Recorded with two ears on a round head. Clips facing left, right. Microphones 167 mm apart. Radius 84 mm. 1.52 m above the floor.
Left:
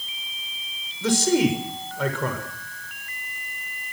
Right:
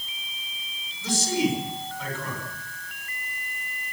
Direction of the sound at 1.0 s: 50° left (ahead or behind).